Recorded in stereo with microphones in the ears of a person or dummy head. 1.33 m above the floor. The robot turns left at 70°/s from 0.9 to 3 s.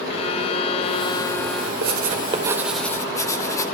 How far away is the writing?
About 3 m.